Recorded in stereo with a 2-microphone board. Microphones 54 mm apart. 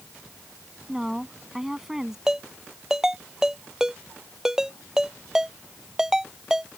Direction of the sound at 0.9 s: 10° right (ahead or behind).